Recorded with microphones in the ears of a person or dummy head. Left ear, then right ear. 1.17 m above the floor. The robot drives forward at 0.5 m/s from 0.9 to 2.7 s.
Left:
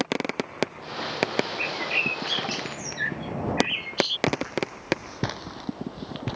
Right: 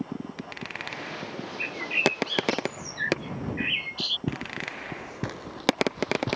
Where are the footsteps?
40° left (ahead or behind); by 6.4 s 15° right (ahead or behind).